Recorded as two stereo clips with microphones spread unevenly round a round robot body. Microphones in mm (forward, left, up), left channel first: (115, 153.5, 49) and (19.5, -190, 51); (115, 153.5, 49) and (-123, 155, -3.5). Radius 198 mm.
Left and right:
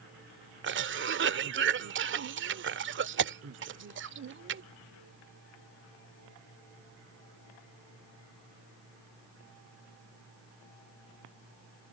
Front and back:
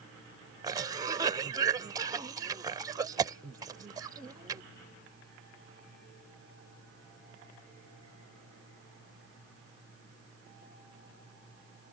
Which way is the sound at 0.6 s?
135° right.